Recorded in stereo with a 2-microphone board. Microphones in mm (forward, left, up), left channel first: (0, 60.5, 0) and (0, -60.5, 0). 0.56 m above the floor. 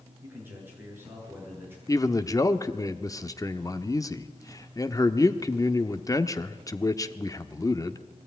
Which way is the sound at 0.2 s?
20° right (ahead or behind).